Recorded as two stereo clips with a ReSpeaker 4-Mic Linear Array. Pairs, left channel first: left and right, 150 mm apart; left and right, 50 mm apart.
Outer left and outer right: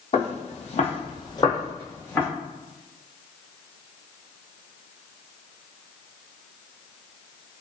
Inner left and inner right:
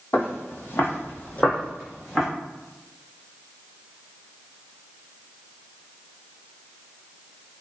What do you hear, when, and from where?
0.1 s footsteps: 45° left (ahead or behind), 0.8 m; by 2.3 s 10° left (ahead or behind), 1.2 m